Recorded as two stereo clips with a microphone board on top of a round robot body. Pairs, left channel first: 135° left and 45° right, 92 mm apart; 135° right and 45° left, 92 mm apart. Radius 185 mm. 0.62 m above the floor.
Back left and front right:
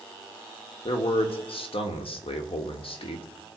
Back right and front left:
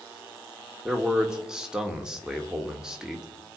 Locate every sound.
0.8 s a man speaking: 130° left, 2 m